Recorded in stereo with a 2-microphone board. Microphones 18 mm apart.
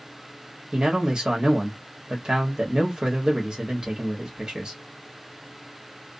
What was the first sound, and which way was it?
A man speaking, 50° right (ahead or behind).